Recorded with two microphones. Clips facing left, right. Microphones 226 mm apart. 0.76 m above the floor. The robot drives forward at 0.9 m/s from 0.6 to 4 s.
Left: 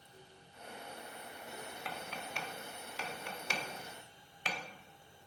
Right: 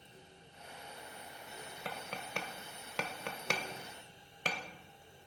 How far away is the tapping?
About 1.5 m.